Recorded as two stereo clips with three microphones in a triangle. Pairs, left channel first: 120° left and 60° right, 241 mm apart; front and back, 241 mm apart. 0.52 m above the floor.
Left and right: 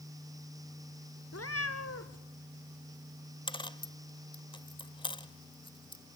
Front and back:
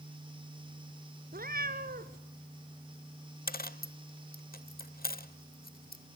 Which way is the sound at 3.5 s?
55° left.